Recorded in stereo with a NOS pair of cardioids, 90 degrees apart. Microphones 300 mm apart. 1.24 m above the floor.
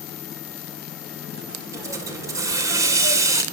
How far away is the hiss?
About 6 m.